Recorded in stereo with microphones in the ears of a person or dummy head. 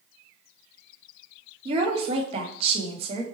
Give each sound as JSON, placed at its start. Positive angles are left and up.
{"t": 1.6, "sound": "a woman speaking", "side_deg": -35, "distance_m": 0.9}